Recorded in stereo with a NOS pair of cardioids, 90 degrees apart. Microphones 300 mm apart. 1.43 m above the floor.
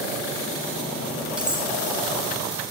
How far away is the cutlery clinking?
About 3 m.